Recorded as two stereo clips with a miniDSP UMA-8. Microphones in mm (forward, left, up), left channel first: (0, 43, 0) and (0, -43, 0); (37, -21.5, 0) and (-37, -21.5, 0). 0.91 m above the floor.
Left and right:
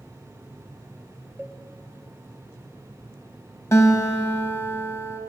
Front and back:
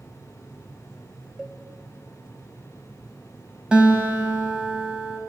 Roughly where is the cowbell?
Behind right.